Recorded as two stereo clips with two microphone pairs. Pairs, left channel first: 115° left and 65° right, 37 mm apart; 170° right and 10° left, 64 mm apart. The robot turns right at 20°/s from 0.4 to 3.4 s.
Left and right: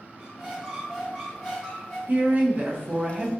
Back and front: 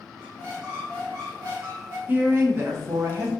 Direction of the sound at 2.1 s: 40° right.